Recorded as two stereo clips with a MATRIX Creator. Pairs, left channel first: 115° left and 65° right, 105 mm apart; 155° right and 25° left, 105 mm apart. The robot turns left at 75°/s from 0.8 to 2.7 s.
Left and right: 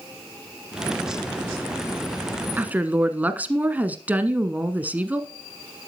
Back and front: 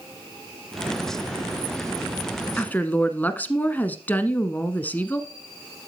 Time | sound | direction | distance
2.6 | a woman speaking | 105° right | 1.1 m